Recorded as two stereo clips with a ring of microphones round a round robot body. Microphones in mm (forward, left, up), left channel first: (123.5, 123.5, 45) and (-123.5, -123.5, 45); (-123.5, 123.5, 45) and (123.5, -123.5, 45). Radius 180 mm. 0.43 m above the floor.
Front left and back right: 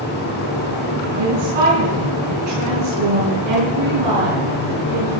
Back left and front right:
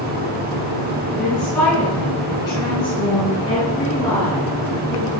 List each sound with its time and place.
1.1 s a woman speaking: 135° right, 4.5 m; by 5.1 s 160° right, 6.5 m